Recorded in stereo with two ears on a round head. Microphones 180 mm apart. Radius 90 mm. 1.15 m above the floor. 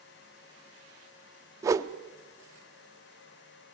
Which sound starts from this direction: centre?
A whoosh, at 1.6 s.